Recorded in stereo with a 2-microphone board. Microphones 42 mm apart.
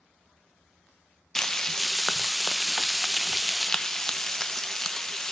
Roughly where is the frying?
Centre.